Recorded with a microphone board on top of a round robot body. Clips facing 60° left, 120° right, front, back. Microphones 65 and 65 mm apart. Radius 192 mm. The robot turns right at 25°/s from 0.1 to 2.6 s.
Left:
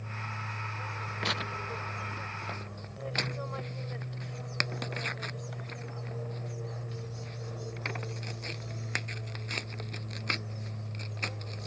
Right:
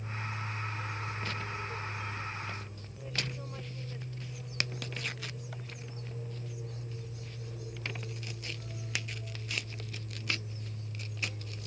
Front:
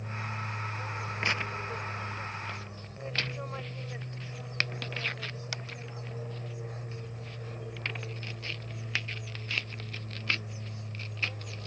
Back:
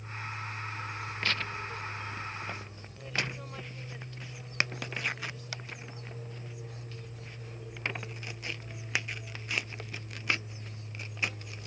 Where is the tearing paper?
70° left; by 11.7 s 105° left.